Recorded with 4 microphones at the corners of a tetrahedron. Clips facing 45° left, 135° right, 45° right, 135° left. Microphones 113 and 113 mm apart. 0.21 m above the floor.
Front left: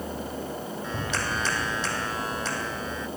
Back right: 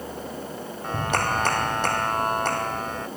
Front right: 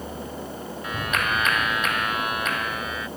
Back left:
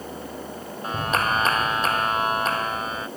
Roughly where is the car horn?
No car horn in this recording.